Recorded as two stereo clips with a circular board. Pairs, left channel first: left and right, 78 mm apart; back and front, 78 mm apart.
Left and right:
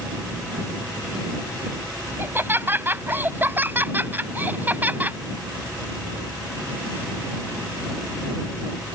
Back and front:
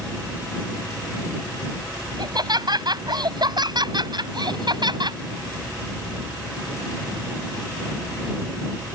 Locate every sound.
2.2 s laughter: 30° right; by 5.2 s 20° right